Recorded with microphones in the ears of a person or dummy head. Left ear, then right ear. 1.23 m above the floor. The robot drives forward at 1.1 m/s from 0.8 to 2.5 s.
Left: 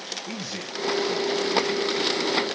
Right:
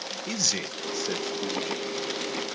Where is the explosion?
I don't hear an explosion.